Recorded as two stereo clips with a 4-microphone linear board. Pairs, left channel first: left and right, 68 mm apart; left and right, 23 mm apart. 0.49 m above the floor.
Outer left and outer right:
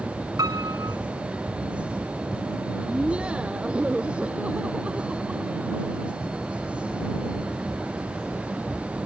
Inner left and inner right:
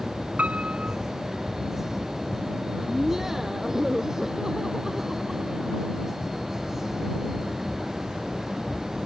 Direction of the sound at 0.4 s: 75° right (ahead or behind).